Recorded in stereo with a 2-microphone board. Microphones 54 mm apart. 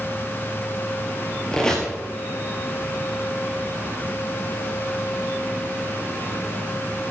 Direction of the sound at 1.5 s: 15° left (ahead or behind).